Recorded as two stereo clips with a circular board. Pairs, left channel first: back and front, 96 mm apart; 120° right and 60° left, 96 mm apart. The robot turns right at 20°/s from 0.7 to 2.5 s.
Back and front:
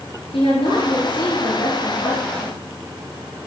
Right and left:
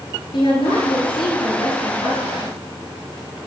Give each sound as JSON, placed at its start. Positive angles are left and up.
{"t": 0.3, "sound": "a woman speaking", "azimuth_deg": -155, "distance_m": 8.0}